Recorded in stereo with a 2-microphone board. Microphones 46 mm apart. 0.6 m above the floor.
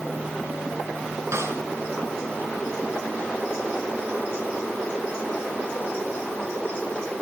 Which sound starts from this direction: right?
A snare drum, at 1.3 s.